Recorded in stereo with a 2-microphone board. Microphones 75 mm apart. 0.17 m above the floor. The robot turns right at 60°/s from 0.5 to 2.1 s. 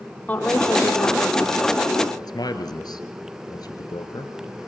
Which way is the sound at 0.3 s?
20° left.